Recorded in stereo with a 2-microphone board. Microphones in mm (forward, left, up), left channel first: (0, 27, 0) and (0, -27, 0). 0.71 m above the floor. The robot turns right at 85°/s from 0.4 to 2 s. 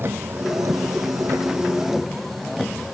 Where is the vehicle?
135° right; by 2.9 s straight ahead.